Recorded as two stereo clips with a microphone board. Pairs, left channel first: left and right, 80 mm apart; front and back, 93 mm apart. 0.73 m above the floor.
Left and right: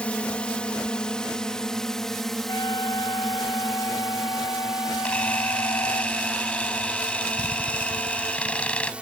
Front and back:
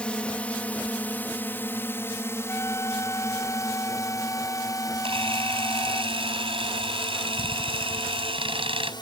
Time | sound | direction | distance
0.0 | a drone | 50° left | ?
2.5 | a flute | 60° left | ?
5.0 | a camera shutter | 165° left | ?